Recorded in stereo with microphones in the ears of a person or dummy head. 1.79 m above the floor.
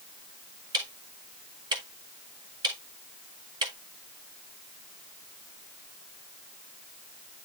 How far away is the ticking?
About 1.4 m.